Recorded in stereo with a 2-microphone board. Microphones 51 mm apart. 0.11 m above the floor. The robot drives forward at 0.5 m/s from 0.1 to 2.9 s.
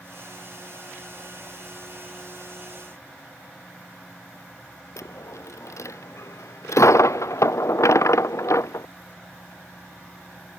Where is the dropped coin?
80° left.